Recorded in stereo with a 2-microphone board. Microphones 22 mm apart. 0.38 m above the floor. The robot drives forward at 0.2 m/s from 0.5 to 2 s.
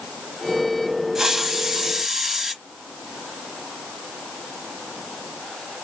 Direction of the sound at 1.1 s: 20° right (ahead or behind).